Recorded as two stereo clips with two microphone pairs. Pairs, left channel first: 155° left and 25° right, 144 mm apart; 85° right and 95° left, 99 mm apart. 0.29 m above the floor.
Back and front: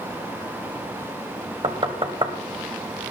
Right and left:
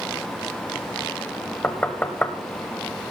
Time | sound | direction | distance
1.6 | knocking | 25° right | 1.1 m